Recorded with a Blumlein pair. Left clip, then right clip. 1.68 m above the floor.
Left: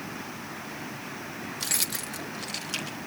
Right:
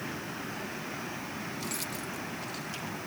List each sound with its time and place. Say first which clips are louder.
1.6 s keys jangling: left 10 dB; 60° left